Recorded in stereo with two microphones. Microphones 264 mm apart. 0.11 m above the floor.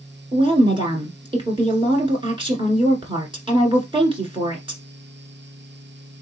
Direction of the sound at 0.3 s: 20° right (ahead or behind).